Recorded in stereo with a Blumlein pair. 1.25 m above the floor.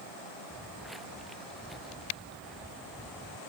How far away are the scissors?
I don't hear scissors.